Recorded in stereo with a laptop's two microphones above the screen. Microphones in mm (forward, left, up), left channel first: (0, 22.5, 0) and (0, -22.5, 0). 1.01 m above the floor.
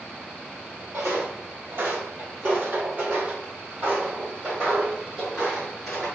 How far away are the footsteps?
About 1.8 m.